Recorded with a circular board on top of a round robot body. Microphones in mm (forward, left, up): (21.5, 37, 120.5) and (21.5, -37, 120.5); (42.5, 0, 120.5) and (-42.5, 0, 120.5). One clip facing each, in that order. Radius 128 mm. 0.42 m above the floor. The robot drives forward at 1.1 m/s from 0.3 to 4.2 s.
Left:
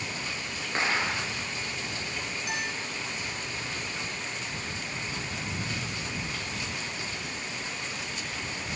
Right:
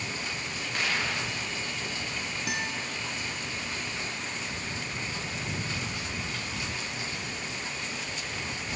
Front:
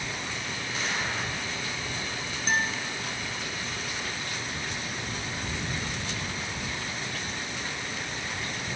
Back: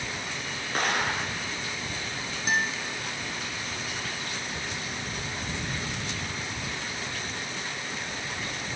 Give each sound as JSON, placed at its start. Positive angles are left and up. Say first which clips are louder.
{"t": 0.8, "sound": "an explosion", "louder": "left 3 dB, back 5 dB", "azimuth_deg": 150, "distance_m": 1.1}
{"t": 2.5, "sound": "a guitar", "louder": "right 1 dB, even", "azimuth_deg": -100, "distance_m": 1.6}